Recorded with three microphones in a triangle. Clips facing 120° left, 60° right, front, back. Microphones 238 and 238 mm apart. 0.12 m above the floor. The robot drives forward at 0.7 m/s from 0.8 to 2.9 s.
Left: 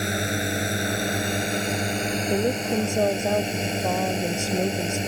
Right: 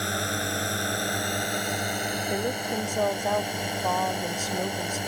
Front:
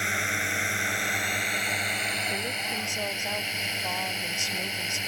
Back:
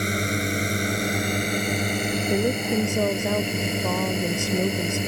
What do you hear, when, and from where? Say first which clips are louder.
0.0 s a drone: left 4 dB, back 10 dB; straight behind
2.3 s a woman speaking: left 6 dB, back 15 dB; 175° left